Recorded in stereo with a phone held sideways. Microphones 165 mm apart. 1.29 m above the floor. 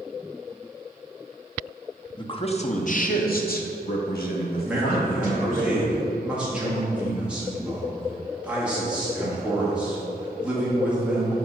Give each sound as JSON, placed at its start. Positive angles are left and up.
{"t": 2.2, "sound": "a man speaking", "side_deg": 30, "distance_m": 0.8}
{"t": 4.7, "sound": "a man speaking", "side_deg": -5, "distance_m": 2.0}